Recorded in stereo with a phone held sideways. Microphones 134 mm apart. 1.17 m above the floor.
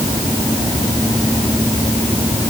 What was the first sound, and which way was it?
Only background noise.